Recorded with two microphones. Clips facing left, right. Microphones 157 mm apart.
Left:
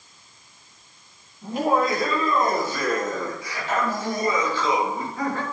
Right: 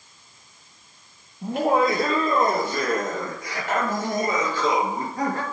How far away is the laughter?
About 6 m.